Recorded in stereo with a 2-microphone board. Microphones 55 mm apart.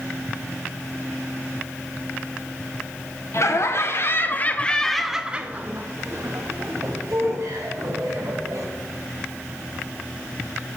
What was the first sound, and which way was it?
Laughter, 60° left (ahead or behind).